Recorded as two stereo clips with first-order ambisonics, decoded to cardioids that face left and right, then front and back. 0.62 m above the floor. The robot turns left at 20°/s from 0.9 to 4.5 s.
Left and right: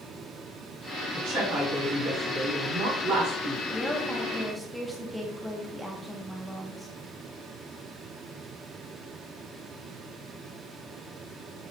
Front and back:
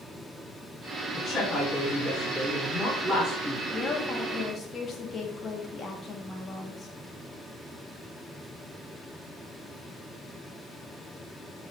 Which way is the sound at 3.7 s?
10° left.